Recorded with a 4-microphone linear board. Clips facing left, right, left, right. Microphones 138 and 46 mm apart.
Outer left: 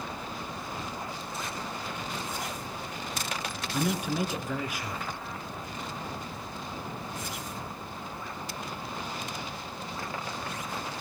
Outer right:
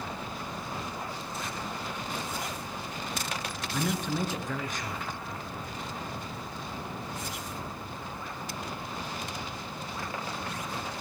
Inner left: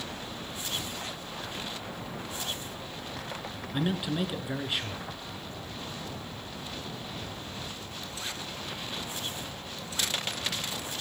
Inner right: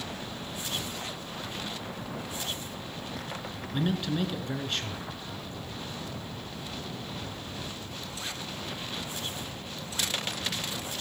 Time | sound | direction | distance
3.7 | a man speaking | 10° left (ahead or behind) | 1.7 m